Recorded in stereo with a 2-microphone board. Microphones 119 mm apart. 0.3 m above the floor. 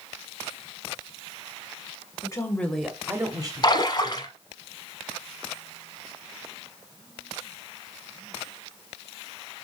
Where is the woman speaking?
35° left (ahead or behind), 1.6 m; by 4.3 s 55° right (ahead or behind), 3 m.